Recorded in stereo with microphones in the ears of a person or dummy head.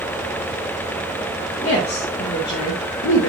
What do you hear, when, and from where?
1.6 s a woman speaking: 35° left (ahead or behind), 2.5 m; by 3.3 s 70° left (ahead or behind), 1.7 m